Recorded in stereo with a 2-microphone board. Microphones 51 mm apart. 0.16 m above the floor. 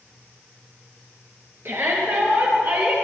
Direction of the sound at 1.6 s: 50° right (ahead or behind).